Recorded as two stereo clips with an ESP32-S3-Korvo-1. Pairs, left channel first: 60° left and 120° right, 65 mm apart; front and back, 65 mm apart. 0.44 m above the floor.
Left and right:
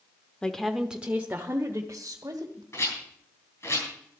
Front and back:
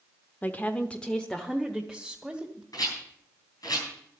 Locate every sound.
0.4 s a woman speaking: straight ahead, 0.9 m; by 2.6 s 95° right, 2.0 m
2.7 s a rattle: 15° left, 7 m